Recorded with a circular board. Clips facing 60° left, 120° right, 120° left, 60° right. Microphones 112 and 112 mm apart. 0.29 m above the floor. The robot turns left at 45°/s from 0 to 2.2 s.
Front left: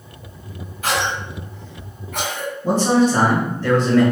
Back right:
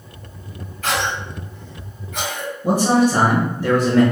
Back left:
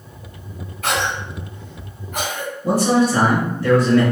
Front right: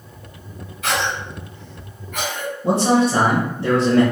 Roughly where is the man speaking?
Ahead right.